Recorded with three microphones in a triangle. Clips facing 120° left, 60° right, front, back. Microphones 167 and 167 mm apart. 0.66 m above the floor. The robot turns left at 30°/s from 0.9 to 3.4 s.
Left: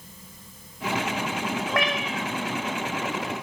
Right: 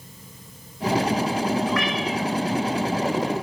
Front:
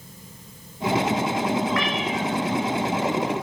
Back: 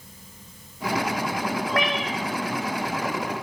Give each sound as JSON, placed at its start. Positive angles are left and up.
{"t": 1.7, "sound": "a cat meowing", "azimuth_deg": 150, "distance_m": 1.1}